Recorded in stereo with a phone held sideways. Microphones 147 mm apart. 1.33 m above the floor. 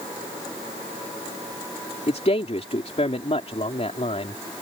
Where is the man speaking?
45° left (ahead or behind).